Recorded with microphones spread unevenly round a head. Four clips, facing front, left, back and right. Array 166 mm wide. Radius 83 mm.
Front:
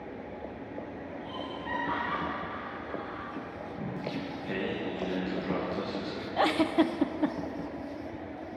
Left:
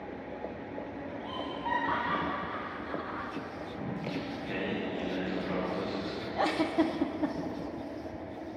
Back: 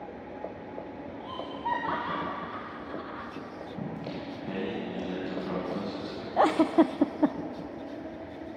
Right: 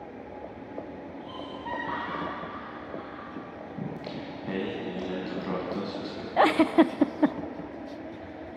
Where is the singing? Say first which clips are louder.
Even, front 1 dB; 120° right, 6 m.